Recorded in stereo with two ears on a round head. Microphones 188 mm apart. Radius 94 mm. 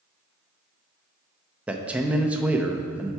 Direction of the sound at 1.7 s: 5° right (ahead or behind).